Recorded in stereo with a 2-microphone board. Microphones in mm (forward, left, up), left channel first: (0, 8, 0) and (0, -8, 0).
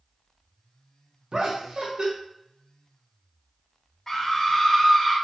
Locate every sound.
1.3 s laughter: 55° right (ahead or behind), 0.8 m
4.1 s a scream: 25° left (ahead or behind), 0.9 m